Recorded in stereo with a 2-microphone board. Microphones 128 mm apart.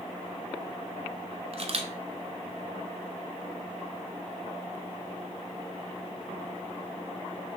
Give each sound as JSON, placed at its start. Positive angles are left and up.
{"t": 1.5, "sound": "a camera shutter", "side_deg": -50, "distance_m": 0.5}